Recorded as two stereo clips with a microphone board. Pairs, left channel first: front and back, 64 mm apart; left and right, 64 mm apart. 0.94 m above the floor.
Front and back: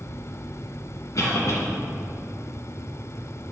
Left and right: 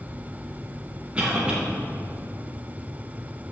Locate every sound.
1.1 s a cough: 20° right, 0.9 m